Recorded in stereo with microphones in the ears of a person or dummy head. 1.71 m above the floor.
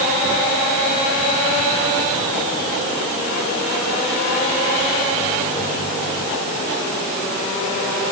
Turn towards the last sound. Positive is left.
No sound to turn to.